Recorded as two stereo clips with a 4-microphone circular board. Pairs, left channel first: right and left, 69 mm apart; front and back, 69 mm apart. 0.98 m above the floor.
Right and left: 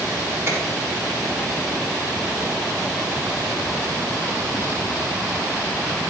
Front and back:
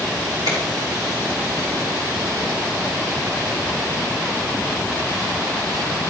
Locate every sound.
0.5 s a finger snap: 150° left, 4.5 m